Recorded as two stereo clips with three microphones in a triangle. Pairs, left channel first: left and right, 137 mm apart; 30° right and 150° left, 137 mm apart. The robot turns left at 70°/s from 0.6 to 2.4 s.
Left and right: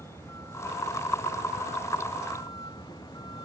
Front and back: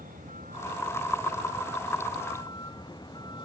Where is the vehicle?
160° left; by 3.5 s 30° left.